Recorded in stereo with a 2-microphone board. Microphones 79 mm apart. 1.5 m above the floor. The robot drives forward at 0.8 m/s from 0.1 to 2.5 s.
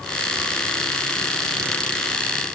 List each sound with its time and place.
Only background noise.